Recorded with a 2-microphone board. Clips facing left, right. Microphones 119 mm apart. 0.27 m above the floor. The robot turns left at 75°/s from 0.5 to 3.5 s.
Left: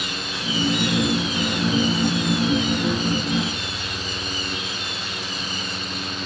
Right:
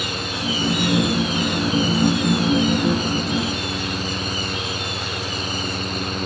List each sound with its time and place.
Only background noise.